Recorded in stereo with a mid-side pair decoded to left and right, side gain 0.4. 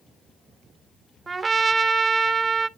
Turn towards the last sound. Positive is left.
turn(degrees=-30)